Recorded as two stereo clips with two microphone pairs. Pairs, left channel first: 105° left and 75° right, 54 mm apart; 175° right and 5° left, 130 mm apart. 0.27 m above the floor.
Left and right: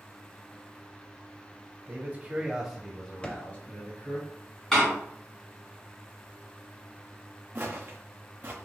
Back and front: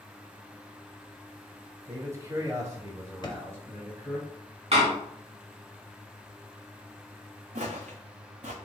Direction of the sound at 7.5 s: 20° right.